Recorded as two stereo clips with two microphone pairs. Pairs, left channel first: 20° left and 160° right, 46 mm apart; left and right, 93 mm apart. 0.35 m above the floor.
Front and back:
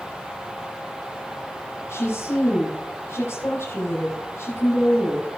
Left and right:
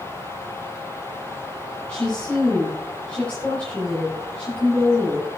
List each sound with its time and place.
1.9 s a woman speaking: 10° left, 7 m